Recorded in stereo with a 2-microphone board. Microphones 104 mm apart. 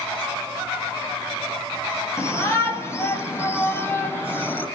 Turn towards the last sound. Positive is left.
turn(degrees=20)  # may be behind; listen again after turning